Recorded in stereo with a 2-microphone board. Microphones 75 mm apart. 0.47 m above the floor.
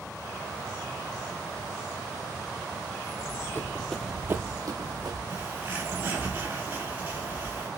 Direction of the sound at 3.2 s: 45° left (ahead or behind).